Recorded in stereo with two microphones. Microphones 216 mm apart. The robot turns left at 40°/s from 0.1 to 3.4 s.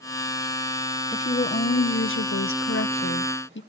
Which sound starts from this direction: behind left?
A woman speaking, at 1.1 s.